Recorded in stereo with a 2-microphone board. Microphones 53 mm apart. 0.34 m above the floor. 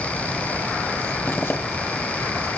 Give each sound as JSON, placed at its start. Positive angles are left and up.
{"t": 1.3, "sound": "a zipper", "side_deg": 45, "distance_m": 1.8}